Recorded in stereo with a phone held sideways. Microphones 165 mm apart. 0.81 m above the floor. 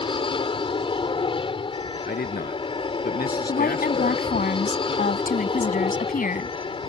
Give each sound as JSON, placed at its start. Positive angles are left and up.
{"t": 0.0, "sound": "an aircraft", "side_deg": 35}
{"t": 2.0, "sound": "a man speaking", "side_deg": 85}
{"t": 3.5, "sound": "a woman speaking", "side_deg": 65}